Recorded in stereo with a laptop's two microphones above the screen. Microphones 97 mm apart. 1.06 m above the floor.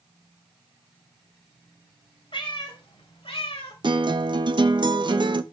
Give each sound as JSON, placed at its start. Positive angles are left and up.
{"t": 2.3, "sound": "a cat meowing", "side_deg": 65, "distance_m": 3.0}
{"t": 3.8, "sound": "a guitar", "side_deg": -50, "distance_m": 0.8}